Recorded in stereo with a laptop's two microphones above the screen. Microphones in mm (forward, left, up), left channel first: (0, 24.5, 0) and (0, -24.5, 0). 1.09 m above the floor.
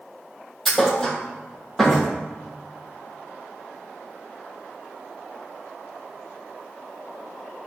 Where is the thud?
5° left (ahead or behind), 3.5 m.